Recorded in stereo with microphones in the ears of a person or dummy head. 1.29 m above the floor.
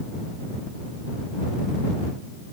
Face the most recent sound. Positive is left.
No sound to turn to.